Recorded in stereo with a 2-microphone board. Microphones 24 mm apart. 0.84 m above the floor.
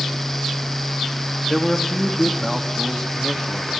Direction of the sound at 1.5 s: 20° left (ahead or behind).